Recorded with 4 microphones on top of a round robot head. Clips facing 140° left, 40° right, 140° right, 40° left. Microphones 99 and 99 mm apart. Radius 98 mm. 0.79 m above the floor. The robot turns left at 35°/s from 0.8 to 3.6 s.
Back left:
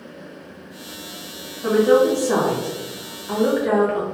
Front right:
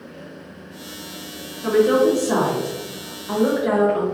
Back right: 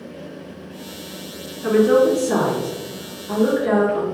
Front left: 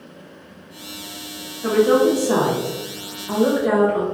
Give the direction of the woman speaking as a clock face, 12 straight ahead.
9 o'clock.